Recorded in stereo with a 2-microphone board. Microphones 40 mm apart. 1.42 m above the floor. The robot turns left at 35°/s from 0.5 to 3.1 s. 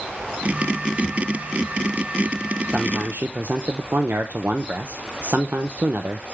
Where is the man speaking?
40° right (ahead or behind), 0.7 m; by 6.2 s 55° right (ahead or behind), 0.7 m.